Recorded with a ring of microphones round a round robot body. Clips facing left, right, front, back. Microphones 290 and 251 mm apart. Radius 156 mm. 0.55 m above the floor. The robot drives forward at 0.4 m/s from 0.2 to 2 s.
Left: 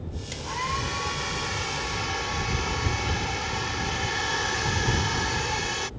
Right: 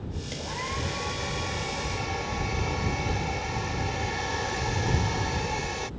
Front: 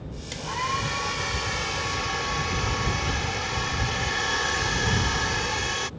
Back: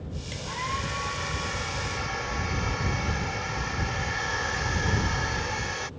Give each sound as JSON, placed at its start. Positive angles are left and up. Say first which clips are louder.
{"t": 0.3, "sound": "a hair dryer", "louder": "even, front 6 dB", "azimuth_deg": 25}